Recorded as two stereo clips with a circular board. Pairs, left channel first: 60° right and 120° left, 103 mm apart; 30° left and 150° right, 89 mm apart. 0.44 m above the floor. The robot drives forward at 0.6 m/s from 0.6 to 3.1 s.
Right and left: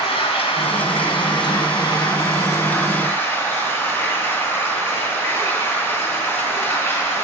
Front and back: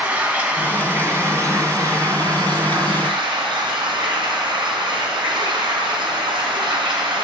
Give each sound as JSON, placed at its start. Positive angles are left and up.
{"t": 0.0, "sound": "running water", "azimuth_deg": -75, "distance_m": 1.5}